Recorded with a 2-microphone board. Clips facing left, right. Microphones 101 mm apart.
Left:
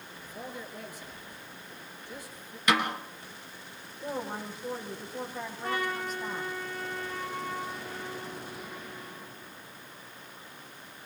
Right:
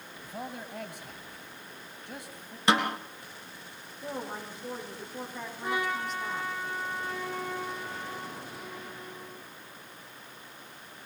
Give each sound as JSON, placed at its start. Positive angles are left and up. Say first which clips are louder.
{"t": 0.2, "sound": "a man speaking", "louder": "right 2 dB", "side_deg": -60, "distance_m": 3.5}
{"t": 2.7, "sound": "a snare drum", "louder": "right 1 dB", "side_deg": -30, "distance_m": 3.0}
{"t": 4.0, "sound": "a woman speaking", "louder": "left 2 dB", "side_deg": 5, "distance_m": 8.0}
{"t": 5.6, "sound": "a trumpet", "louder": "right 1 dB", "side_deg": -10, "distance_m": 6.5}